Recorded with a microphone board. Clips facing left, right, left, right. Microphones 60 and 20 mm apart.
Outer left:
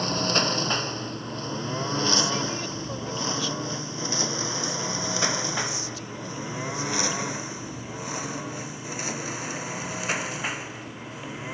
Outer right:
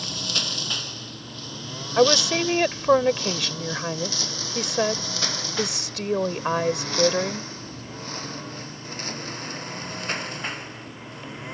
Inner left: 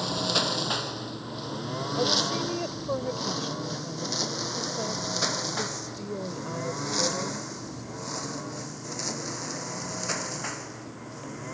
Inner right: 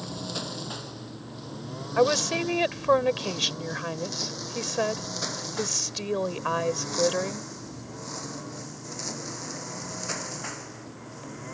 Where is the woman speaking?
70° right (ahead or behind).